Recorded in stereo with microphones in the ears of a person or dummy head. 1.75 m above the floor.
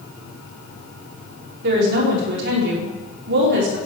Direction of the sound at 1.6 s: 70° right (ahead or behind).